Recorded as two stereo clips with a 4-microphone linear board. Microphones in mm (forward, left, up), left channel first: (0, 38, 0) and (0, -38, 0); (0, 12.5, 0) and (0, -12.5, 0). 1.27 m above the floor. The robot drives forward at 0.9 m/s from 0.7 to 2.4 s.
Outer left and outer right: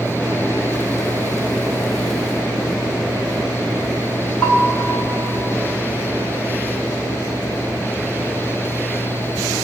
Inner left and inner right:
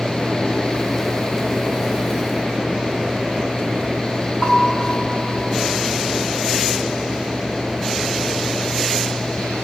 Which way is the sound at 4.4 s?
15° left (ahead or behind).